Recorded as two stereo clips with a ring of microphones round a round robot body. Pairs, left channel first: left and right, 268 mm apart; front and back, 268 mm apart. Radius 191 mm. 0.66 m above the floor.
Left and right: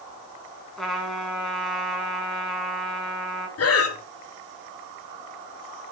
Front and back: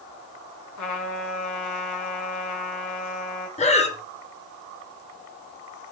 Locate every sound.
0.8 s a trumpet: straight ahead, 5.5 m
3.6 s breathing: 65° left, 2.5 m